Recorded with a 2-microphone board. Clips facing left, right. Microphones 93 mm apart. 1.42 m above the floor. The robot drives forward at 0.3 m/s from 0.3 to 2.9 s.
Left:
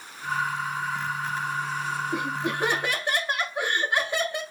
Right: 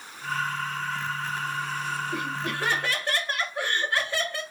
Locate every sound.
2.1 s laughter: 20° left (ahead or behind), 1.1 m; by 4.4 s 15° left (ahead or behind), 1.3 m